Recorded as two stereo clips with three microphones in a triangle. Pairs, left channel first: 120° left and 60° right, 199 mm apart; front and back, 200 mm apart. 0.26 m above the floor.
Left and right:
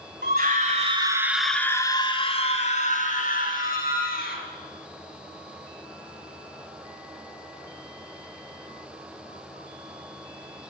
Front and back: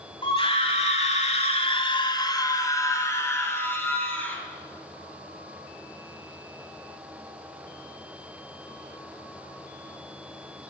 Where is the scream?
55° right, 1.7 m; by 4.4 s 80° left, 4.5 m.